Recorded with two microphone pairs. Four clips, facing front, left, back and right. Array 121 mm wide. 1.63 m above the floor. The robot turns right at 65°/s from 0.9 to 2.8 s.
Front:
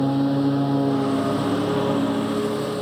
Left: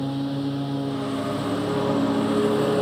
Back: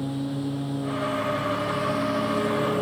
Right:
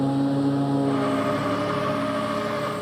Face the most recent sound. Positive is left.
turn(degrees=95)